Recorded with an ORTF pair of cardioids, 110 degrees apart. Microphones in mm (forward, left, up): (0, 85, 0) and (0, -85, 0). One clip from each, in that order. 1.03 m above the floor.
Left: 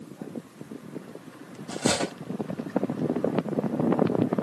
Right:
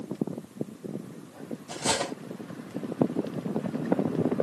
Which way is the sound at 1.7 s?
5° left.